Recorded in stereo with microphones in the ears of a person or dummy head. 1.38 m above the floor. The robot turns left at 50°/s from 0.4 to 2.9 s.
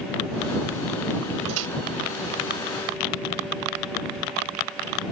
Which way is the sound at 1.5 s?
75° right (ahead or behind).